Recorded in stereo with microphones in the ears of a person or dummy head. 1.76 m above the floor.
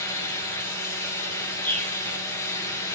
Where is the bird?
10° left (ahead or behind), 5 m.